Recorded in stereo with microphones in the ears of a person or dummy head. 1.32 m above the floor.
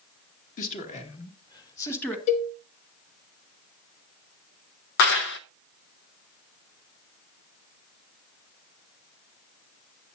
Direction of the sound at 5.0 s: 55° left (ahead or behind).